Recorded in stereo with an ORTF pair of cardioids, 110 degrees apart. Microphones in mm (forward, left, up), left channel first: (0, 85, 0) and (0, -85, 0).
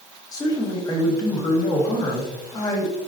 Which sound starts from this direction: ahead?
A man speaking, at 0.3 s.